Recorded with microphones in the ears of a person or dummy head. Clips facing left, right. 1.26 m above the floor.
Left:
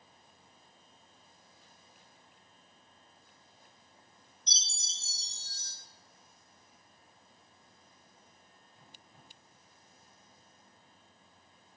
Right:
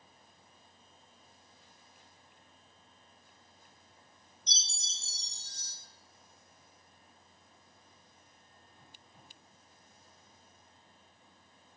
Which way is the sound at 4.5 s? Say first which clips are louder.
Right 1 dB; 60° left (ahead or behind).